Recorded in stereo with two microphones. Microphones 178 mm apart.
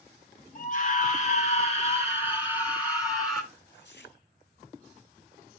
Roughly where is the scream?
Left.